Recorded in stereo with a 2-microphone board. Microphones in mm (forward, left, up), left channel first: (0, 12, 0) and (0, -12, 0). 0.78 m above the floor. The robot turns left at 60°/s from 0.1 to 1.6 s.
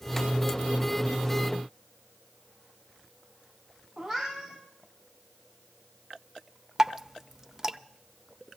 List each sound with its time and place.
4.0 s a cat meowing: 40° right (ahead or behind), 5.5 m
6.8 s dripping: 20° right (ahead or behind), 0.5 m